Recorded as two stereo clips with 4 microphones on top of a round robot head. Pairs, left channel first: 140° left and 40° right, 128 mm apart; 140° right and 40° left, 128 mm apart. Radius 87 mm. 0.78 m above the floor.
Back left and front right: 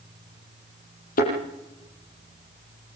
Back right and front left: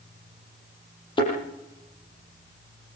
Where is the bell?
I don't hear a bell.